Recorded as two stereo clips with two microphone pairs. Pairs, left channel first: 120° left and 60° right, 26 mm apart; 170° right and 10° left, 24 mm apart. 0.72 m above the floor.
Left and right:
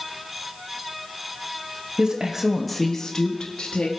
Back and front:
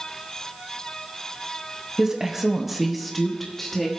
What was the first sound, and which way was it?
A woman speaking, 45° right.